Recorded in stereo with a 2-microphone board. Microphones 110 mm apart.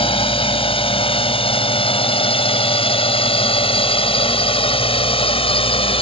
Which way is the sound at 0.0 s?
55° left (ahead or behind).